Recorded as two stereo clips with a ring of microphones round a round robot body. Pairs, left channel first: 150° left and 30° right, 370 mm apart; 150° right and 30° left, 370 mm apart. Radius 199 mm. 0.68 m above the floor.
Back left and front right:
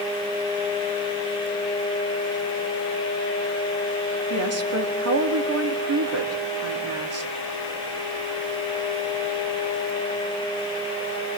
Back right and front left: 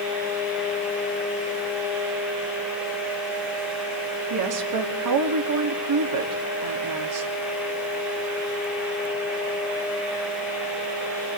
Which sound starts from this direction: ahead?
A woman speaking, at 4.3 s.